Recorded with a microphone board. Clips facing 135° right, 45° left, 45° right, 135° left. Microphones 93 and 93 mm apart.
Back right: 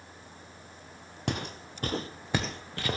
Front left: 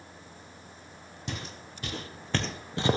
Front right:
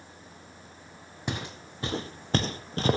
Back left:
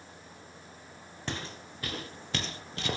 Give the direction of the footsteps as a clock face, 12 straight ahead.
4 o'clock.